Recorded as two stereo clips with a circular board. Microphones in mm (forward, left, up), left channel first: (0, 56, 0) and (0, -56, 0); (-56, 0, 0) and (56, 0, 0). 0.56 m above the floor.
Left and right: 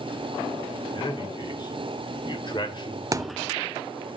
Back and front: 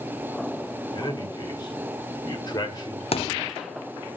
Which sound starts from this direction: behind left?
A man speaking, at 0.9 s.